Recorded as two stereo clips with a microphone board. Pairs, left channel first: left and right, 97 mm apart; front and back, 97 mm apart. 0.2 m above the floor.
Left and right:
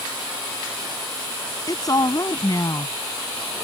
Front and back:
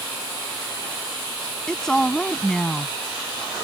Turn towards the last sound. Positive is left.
turn(degrees=80)